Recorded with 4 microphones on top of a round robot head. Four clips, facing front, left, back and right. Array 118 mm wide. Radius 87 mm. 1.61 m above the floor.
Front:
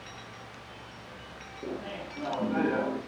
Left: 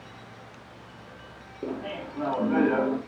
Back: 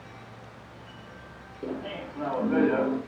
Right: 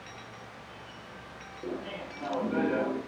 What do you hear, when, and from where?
1.6 s laughter: 100° left, 3 m